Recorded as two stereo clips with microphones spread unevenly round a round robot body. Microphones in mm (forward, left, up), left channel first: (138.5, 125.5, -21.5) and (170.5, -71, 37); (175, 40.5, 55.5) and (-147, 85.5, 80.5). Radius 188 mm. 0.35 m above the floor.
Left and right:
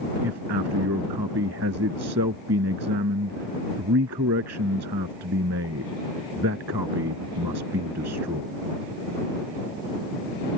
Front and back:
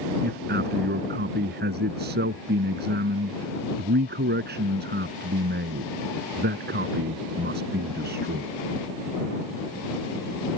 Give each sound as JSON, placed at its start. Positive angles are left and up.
{"t": 0.2, "sound": "a man speaking", "azimuth_deg": -125}